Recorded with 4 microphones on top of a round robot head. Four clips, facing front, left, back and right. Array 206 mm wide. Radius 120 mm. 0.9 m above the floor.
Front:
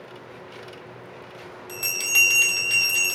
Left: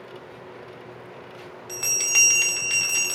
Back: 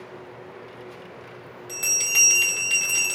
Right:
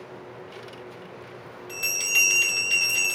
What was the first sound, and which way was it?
A bell, 95° left.